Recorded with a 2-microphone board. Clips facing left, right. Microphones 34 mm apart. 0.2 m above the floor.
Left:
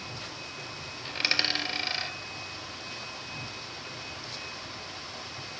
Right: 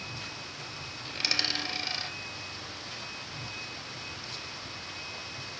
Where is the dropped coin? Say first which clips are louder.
Left 3 dB; 25° left (ahead or behind), 1.3 m.